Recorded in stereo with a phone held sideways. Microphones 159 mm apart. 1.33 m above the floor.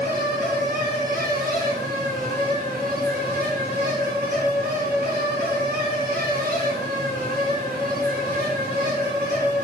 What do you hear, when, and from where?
0.0 s a fan: 70° right (ahead or behind), 2.5 m